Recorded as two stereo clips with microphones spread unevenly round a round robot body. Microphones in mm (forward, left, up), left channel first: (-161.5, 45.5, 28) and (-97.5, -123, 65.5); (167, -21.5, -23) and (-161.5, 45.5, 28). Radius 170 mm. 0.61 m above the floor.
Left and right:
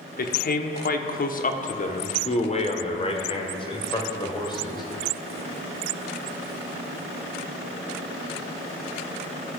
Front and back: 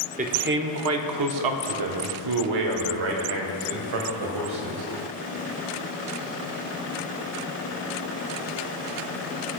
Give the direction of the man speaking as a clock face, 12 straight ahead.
9 o'clock.